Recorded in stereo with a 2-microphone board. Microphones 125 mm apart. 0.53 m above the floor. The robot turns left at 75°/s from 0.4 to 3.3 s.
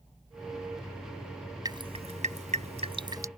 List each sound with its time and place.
1.6 s dripping: 35° right (ahead or behind); by 3.3 s 25° right (ahead or behind)